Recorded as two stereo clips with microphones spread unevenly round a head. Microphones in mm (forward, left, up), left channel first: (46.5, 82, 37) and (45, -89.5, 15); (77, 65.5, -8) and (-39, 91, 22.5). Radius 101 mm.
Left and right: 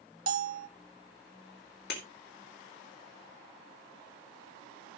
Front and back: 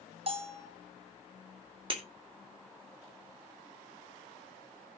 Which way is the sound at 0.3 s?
145° right.